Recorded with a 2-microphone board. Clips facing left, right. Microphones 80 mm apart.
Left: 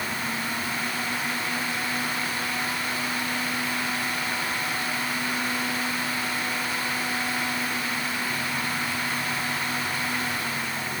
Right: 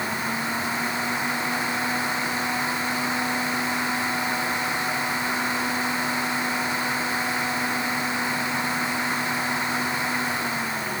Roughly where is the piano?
No piano in this recording.